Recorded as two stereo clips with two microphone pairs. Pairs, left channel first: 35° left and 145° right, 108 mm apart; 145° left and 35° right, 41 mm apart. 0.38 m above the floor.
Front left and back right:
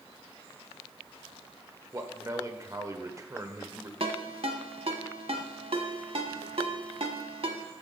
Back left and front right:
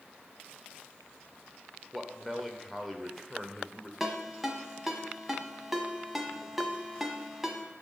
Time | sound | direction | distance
1.9 | a man speaking | 120° right | 1.1 m
4.0 | a ringtone | 120° right | 1.3 m